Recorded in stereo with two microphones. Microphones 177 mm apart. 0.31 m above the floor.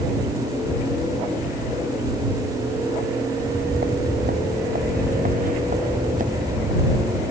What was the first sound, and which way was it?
Footsteps, 60° right (ahead or behind).